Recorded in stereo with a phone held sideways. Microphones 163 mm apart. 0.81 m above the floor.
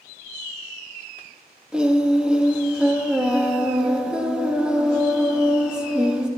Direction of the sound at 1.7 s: 5° right (ahead or behind).